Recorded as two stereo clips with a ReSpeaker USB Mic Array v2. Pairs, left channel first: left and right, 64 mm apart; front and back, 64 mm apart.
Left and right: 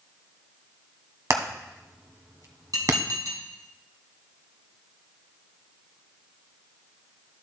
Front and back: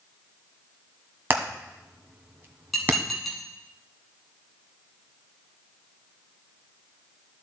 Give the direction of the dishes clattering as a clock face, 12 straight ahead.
3 o'clock.